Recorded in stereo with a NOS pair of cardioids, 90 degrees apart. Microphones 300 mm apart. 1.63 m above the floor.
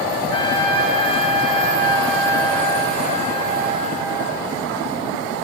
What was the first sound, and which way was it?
A trumpet, 15° left.